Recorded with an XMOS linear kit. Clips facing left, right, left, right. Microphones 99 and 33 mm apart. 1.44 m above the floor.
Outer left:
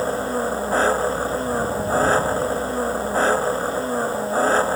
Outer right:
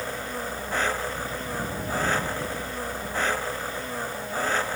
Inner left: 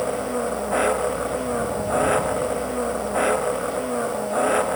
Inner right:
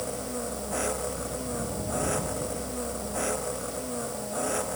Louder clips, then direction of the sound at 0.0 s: Outer left 10 dB, inner left 9 dB; 35° left (ahead or behind).